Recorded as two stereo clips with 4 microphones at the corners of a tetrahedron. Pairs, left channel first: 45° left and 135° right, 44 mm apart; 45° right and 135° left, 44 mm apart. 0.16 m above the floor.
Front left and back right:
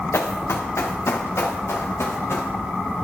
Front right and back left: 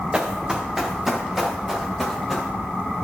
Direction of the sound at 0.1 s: 60° left.